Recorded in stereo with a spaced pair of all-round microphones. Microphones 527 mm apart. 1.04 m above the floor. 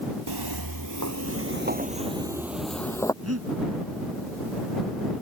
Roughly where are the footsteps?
Right.